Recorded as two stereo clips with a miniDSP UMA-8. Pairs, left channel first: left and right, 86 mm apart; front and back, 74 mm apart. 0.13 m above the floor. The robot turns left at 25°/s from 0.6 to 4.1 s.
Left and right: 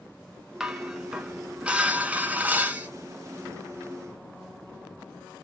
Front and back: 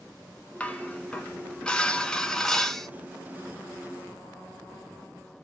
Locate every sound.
0.6 s dishes clattering: 20° right, 0.7 m; by 2.9 s 75° right, 0.7 m